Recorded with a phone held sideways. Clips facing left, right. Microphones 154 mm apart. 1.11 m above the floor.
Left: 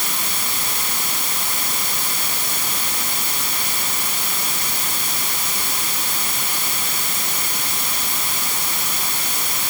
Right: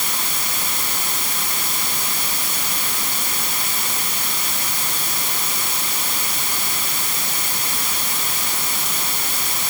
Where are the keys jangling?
I don't hear keys jangling.